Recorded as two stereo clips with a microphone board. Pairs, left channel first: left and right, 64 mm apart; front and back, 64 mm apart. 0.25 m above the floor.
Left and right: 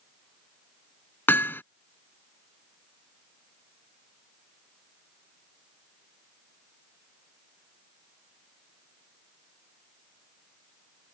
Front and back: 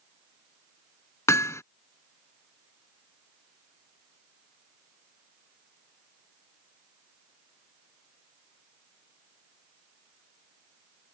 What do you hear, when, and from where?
1.3 s hammering: 40° left